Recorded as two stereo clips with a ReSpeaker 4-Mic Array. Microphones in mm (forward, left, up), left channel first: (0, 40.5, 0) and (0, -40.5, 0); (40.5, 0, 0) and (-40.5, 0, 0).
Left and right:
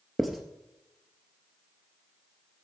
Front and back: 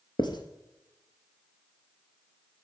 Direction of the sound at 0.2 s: 5° right.